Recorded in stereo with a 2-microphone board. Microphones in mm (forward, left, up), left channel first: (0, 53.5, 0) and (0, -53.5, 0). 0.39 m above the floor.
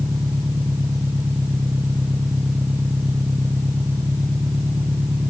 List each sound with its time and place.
0.0 s an engine running: 20° right (ahead or behind)